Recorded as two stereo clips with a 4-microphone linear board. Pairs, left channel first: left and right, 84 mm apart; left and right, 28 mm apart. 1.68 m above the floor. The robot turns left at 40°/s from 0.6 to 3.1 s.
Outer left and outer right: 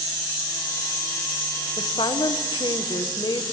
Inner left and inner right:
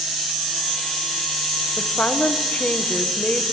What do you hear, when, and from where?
1.8 s a woman speaking: 110° left, 1.5 m; by 3.5 s 60° left, 1.5 m